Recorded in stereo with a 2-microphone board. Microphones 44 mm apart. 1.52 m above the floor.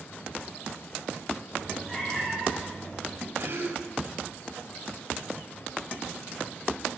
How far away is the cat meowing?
About 3 m.